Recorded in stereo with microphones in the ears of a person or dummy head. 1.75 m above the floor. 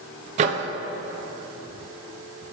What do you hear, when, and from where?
0.4 s a microwave: 40° right (ahead or behind), 0.6 m